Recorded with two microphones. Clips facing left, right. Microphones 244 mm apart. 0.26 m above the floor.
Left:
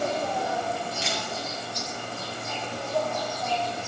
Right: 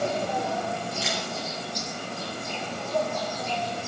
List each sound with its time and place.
0.0 s an insect: 60° right (ahead or behind), 7.5 m
1.0 s a camera shutter: centre (ahead or behind), 6 m